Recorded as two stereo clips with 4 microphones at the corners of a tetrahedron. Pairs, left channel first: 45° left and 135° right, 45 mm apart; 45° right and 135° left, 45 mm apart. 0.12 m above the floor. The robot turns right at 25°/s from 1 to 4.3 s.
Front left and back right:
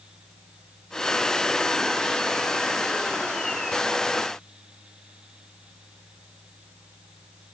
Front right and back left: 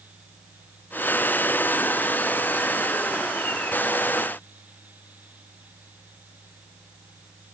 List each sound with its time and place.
Only background noise.